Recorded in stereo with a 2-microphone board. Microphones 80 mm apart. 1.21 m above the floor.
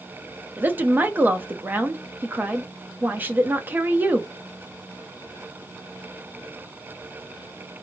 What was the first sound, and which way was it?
A woman speaking, 25° right (ahead or behind).